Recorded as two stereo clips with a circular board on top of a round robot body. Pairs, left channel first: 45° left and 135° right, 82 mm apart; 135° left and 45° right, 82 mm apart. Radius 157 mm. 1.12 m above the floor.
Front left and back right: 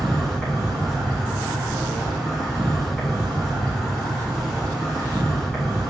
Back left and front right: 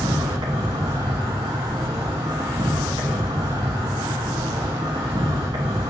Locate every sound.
0.0 s an insect: 45° right, 0.7 m